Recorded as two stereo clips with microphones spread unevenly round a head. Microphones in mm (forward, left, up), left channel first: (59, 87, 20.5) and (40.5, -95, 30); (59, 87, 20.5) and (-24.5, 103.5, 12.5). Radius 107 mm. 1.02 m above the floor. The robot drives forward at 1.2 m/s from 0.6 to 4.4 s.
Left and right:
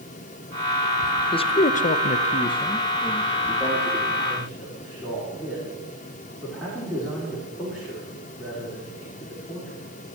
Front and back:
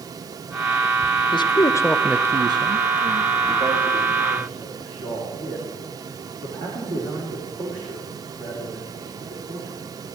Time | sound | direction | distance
1.3 | a man speaking | 20° left | 1.0 m